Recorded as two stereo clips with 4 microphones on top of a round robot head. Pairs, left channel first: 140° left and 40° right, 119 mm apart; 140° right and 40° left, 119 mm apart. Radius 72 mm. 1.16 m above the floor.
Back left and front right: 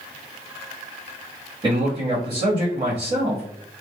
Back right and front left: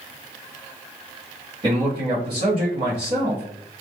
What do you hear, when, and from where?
1.6 s a man speaking: straight ahead, 0.9 m